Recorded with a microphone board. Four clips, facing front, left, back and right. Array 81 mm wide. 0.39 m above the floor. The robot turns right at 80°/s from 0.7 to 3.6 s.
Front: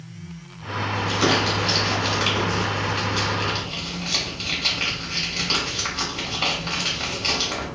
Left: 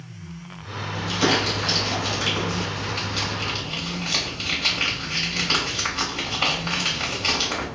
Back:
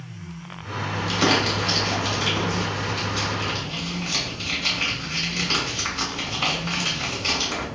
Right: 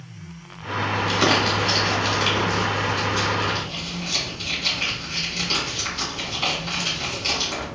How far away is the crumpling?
About 1.1 m.